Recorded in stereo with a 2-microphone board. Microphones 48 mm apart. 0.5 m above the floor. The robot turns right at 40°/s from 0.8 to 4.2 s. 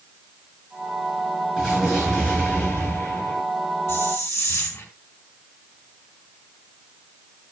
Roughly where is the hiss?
Left.